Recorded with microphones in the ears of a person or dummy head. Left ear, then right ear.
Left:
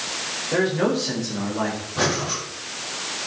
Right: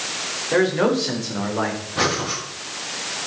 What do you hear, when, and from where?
0.5 s a man speaking: 25° right (ahead or behind), 5 m; by 1.8 s 30° right (ahead or behind), 4 m
2.0 s breathing: 25° right (ahead or behind), 6 m